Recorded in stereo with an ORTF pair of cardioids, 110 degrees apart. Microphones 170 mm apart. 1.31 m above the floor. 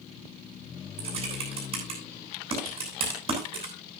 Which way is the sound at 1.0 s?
35° right.